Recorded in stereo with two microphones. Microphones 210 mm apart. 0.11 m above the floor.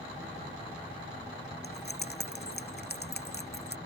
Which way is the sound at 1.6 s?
50° left (ahead or behind).